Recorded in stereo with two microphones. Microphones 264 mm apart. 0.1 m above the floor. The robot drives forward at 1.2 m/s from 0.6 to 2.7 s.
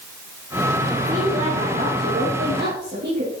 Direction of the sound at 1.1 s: 25° right (ahead or behind).